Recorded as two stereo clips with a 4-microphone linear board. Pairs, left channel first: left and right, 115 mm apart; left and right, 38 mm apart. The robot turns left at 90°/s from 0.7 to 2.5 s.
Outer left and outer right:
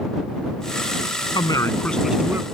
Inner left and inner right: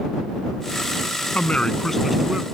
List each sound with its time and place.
1.4 s a man speaking: 65° left; by 2.5 s 35° right